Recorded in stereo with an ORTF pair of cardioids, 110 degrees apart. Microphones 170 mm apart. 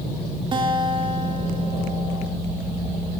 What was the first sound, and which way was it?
A guitar, 30° right.